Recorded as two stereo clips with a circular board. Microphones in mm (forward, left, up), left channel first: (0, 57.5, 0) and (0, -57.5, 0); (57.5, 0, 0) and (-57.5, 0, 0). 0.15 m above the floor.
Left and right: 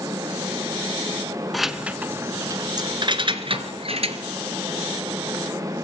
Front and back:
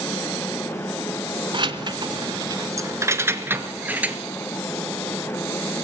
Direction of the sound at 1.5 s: Straight behind.